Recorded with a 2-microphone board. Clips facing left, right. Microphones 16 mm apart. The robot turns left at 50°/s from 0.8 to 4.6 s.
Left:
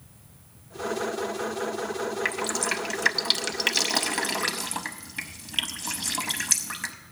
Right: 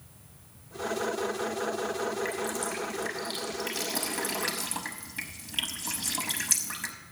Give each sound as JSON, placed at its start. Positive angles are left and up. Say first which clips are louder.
{"t": 2.2, "sound": "dripping", "louder": "left 5 dB", "side_deg": 45, "distance_m": 0.6}